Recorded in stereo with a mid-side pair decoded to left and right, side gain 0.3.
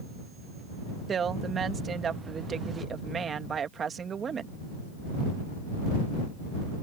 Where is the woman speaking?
65° right.